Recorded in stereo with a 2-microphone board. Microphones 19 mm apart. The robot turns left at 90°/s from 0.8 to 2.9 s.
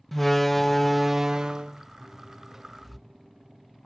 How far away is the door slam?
About 0.6 m.